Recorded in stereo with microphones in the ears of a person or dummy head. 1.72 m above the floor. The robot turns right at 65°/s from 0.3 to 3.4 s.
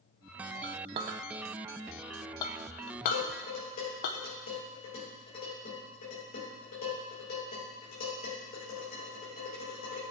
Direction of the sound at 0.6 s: 40° right (ahead or behind).